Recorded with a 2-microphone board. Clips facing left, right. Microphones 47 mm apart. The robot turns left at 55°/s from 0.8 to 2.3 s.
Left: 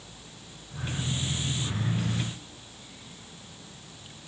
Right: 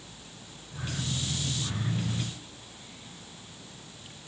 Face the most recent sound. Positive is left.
No sound to turn to.